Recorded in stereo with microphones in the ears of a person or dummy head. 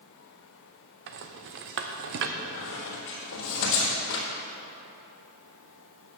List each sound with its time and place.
1.1 s a rattle: 55° right (ahead or behind), 0.7 m
2.4 s a squeak: 65° left (ahead or behind), 2.5 m